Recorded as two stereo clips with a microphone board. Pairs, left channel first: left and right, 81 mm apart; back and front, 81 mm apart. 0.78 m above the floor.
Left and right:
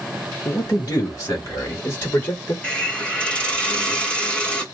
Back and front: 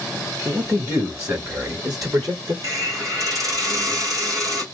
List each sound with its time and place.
0.5 s a man speaking: 55° left, 2.5 m; by 2.5 s 25° left, 1.7 m
2.6 s a hiss: 20° left, 1.3 m